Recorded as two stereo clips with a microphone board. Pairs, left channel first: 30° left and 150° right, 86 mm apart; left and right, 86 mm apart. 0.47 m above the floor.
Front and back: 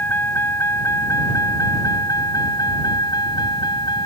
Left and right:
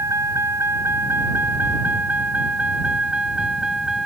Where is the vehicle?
35° right; by 4.1 s 5° right.